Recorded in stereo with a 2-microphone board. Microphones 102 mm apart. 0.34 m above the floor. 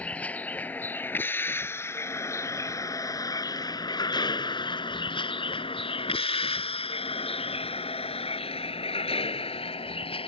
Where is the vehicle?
10° left (ahead or behind); by 10.3 s 70° left (ahead or behind).